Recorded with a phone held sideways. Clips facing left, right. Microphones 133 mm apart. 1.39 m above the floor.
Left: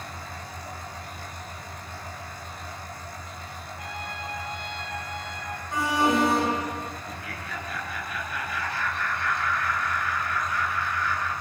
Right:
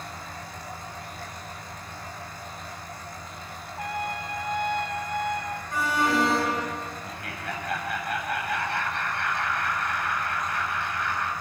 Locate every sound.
3.8 s a trumpet: 55° right (ahead or behind), 2.5 m
5.7 s an alarm: 20° left (ahead or behind), 8 m
7.0 s laughter: 65° right (ahead or behind), 8.5 m